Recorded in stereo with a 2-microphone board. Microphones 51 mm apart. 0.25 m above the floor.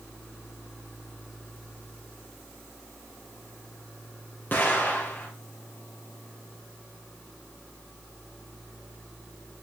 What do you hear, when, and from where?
4.5 s an explosion: 40° left (ahead or behind), 4 m